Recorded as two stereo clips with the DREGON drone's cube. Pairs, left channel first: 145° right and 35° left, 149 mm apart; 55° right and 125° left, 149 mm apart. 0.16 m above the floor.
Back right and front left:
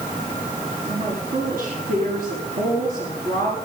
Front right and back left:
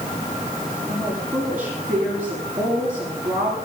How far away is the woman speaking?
About 8.5 m.